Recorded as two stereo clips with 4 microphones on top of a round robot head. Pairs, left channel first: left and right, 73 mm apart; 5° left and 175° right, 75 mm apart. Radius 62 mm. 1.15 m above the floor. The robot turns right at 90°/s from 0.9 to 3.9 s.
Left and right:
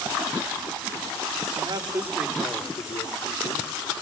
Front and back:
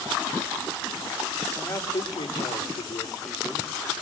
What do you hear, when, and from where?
1.6 s a man speaking: 75° right, 4.5 m; by 3.7 s 120° left, 4.5 m